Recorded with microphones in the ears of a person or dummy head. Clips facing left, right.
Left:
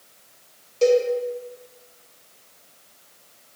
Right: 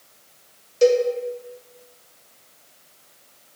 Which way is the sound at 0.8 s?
15° right (ahead or behind).